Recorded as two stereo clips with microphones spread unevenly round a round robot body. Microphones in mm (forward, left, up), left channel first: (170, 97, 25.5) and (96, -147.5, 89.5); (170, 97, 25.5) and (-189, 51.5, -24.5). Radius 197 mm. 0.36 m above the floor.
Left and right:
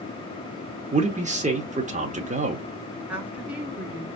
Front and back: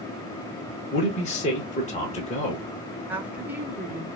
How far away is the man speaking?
About 0.8 m.